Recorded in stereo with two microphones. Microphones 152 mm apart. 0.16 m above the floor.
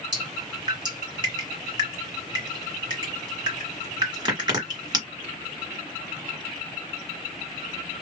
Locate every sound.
0.1 s dripping: 30° right (ahead or behind), 1.9 m